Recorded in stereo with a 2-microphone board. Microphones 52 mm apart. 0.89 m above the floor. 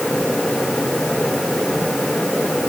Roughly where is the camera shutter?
I don't hear a camera shutter.